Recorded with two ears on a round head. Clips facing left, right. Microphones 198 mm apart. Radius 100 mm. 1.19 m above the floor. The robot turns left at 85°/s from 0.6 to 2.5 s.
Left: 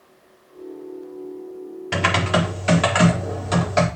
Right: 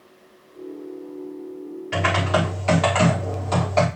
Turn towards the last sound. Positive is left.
turn(degrees=20)